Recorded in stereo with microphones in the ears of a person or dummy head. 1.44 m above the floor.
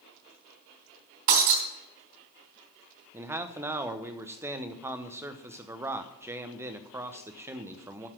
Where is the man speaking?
15° right (ahead or behind), 0.8 m.